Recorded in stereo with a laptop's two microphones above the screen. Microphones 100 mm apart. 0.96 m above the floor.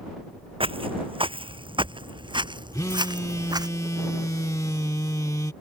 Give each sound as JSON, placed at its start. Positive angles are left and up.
{"t": 0.6, "sound": "footsteps", "side_deg": -65}
{"t": 2.7, "sound": "a phone buzzing", "side_deg": 35}